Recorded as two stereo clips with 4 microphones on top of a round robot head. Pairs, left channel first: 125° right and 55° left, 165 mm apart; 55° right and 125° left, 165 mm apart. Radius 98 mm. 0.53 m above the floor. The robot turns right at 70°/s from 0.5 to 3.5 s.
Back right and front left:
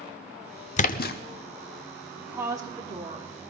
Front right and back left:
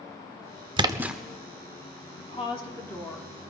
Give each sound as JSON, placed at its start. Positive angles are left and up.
{"t": 0.8, "sound": "a splash", "azimuth_deg": -170, "distance_m": 0.6}
{"t": 2.2, "sound": "a woman speaking", "azimuth_deg": -35, "distance_m": 1.6}